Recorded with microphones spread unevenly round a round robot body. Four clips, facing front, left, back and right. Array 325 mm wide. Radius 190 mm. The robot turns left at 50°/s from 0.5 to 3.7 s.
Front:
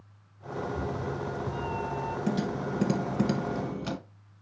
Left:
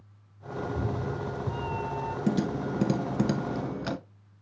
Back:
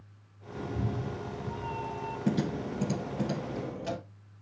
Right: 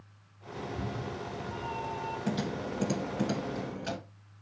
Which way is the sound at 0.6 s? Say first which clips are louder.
Left 5 dB, front 2 dB; 140° left.